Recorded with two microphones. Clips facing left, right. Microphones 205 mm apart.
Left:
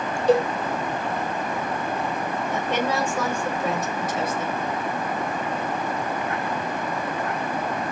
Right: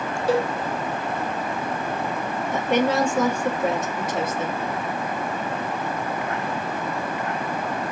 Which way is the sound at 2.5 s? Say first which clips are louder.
Right 5 dB; 25° right (ahead or behind).